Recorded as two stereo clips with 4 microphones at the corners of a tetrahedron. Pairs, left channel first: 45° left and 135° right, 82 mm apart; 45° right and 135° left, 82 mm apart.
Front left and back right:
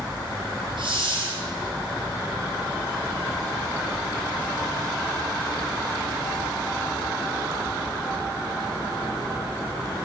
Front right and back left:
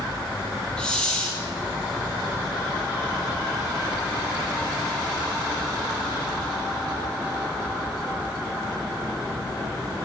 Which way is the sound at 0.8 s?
125° right.